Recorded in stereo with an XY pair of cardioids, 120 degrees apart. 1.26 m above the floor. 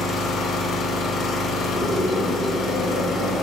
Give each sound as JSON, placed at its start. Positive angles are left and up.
{"t": 0.0, "sound": "an engine running", "azimuth_deg": 60, "distance_m": 0.7}
{"t": 1.7, "sound": "a scream", "azimuth_deg": 55, "distance_m": 1.0}